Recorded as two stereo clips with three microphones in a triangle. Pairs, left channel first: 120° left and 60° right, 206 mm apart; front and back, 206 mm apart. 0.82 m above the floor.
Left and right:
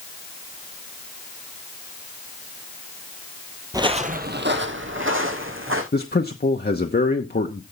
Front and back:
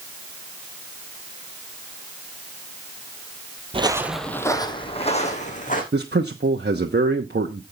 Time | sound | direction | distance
3.7 | footsteps | 130° right | 1.1 m
5.9 | a man speaking | 155° left | 1.0 m